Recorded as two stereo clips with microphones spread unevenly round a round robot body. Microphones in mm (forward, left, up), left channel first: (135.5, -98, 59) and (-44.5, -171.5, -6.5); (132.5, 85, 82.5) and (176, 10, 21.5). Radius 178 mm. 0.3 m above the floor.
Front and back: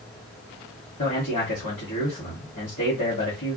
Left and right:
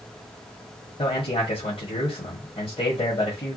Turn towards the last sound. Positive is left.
turn(degrees=70)